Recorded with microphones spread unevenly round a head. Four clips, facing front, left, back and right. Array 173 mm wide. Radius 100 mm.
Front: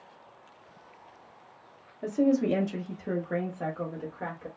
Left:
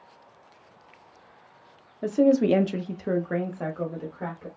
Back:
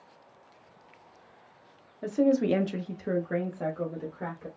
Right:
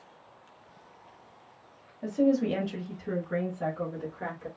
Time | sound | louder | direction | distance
2.0 | a woman speaking | left 5 dB, back 1 dB | 80° left | 0.7 m